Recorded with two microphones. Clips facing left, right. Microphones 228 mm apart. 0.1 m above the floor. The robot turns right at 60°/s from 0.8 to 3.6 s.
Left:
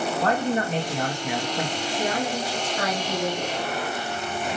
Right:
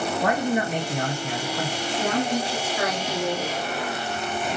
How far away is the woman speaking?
About 1.6 m.